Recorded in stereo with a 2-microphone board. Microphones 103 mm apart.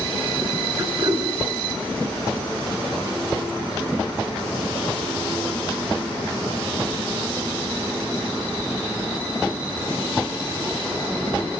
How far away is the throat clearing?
About 6.5 m.